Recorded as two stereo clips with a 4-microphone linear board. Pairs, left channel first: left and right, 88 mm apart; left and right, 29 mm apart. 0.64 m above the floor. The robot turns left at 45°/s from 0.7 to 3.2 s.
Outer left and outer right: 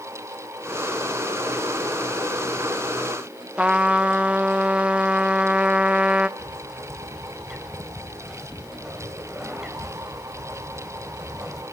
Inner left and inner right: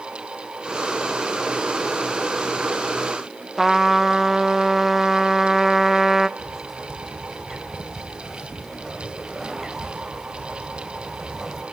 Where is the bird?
5° right (ahead or behind), 2.5 m.